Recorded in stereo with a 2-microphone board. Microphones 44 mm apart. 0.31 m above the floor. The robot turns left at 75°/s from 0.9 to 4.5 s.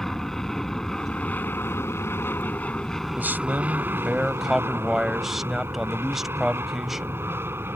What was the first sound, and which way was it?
An aircraft, 165° left.